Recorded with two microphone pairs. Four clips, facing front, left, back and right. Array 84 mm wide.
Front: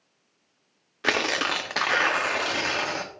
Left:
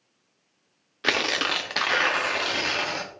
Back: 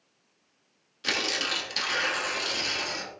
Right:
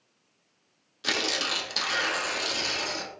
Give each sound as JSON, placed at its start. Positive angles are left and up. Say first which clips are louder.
{"t": 1.0, "sound": "tearing paper", "louder": "left 5 dB, front 6 dB", "azimuth_deg": 35, "distance_m": 0.9}